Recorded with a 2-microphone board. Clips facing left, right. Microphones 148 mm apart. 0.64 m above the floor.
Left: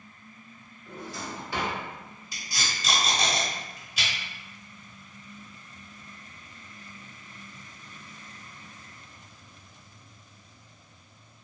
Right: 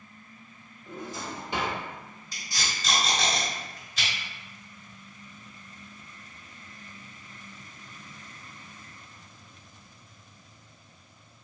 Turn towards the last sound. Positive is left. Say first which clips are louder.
# even
turn(degrees=10)  # may be behind; listen again after turning